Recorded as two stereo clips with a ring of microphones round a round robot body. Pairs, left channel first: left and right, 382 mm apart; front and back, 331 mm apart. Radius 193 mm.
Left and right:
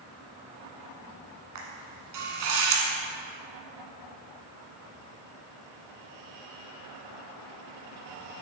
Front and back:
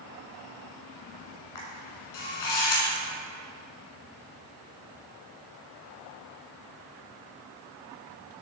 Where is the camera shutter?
45° right, 1.7 m.